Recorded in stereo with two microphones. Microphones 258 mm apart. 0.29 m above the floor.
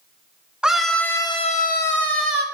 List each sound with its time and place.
0.6 s a scream: 5° right (ahead or behind), 2.5 m; by 2.5 s 60° left (ahead or behind), 1.9 m